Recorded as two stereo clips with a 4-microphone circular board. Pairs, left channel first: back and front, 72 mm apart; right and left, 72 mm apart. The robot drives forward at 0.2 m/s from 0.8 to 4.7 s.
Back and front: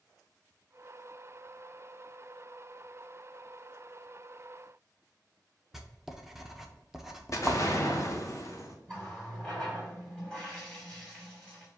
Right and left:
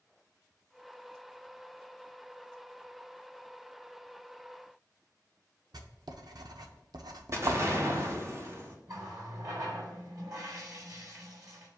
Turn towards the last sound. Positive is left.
turn(degrees=100)